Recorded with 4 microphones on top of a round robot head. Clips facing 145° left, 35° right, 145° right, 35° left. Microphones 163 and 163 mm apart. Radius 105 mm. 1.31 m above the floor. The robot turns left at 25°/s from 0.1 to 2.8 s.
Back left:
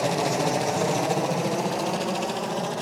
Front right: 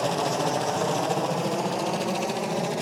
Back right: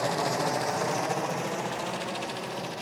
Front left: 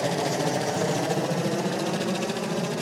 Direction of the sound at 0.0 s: 70° left.